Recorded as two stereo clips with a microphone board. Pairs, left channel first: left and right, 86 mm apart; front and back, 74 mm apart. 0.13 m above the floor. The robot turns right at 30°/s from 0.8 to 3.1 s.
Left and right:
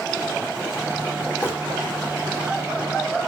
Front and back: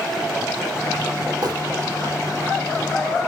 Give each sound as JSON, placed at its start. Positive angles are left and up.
{"t": 1.4, "sound": "crumpling", "azimuth_deg": 150, "distance_m": 3.0}